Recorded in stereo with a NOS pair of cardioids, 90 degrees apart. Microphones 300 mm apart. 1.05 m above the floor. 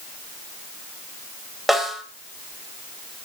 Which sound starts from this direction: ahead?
A snare drum, at 1.7 s.